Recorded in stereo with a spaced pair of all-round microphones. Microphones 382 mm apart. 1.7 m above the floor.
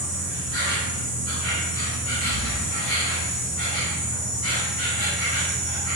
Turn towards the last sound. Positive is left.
turn(degrees=-40)  # may be behind; listen again after turning